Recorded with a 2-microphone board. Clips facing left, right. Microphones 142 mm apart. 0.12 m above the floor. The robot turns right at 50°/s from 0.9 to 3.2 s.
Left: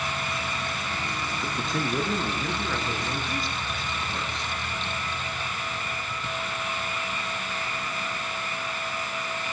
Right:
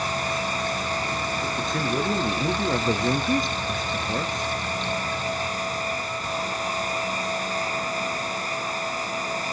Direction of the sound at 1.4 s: 165° left.